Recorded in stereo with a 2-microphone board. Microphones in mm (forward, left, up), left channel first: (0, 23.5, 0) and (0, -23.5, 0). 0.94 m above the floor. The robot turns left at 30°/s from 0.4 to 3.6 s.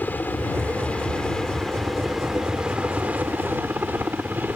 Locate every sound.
0.0 s a helicopter: 45° left; by 4.6 s 50° right